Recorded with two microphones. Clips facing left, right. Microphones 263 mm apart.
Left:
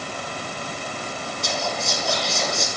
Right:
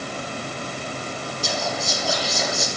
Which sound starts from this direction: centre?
Whispering, at 1.4 s.